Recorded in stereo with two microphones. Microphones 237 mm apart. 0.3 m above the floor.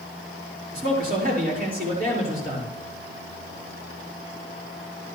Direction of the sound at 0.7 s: 35° right (ahead or behind).